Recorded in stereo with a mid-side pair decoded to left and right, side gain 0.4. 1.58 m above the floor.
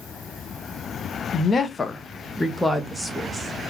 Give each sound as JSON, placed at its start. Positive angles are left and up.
{"t": 1.3, "sound": "a woman speaking", "azimuth_deg": 50, "distance_m": 0.7}